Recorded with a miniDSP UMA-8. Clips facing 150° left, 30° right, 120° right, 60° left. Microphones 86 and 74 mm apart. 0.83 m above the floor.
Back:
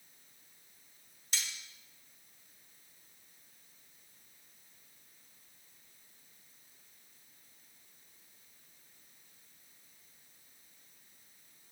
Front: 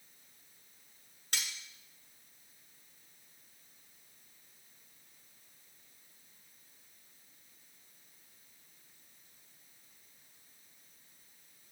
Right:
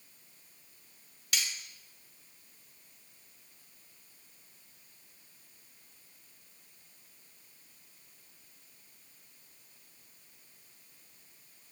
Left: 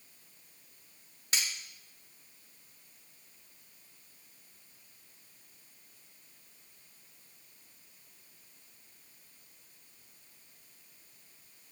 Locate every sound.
1.3 s cutlery clinking: 5° left, 0.8 m